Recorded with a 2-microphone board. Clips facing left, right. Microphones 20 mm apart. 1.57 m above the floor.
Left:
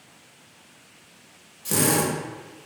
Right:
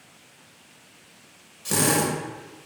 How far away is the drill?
About 0.7 m.